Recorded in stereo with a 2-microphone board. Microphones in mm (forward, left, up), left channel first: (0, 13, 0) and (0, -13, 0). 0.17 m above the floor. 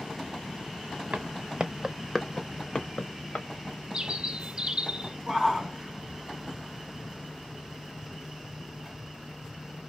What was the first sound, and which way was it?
Footsteps, 60° right (ahead or behind).